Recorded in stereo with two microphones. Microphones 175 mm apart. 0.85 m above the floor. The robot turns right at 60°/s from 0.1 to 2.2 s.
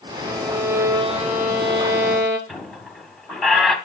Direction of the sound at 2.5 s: Centre (ahead or behind).